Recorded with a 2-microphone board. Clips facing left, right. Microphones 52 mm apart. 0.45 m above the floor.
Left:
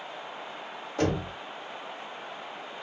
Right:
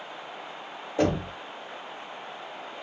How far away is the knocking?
About 1.4 m.